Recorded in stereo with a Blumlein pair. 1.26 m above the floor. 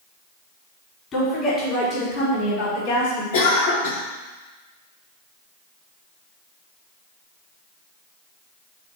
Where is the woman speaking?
25° left, 4 m; by 3.2 s 60° left, 4.5 m.